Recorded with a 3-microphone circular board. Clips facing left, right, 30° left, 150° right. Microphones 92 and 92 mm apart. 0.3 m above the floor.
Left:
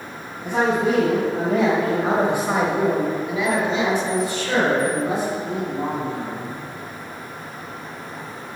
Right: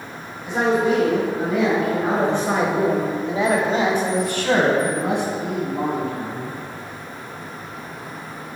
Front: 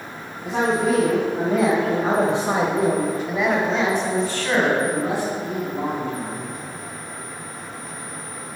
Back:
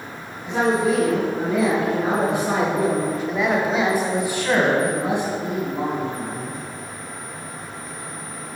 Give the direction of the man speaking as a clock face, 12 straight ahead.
10 o'clock.